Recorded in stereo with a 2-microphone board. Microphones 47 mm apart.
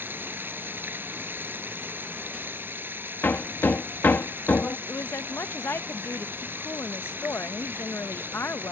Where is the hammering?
50° left (ahead or behind).